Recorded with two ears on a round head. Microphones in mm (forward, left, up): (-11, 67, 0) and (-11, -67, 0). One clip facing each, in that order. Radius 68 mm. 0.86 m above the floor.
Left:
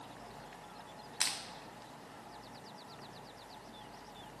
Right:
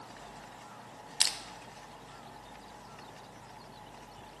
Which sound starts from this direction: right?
Crushing, at 1.2 s.